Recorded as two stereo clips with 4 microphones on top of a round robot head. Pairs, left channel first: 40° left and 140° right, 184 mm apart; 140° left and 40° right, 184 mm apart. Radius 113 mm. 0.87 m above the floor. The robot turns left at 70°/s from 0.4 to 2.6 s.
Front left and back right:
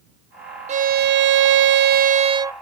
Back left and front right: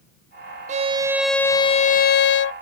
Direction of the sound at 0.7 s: 90° right.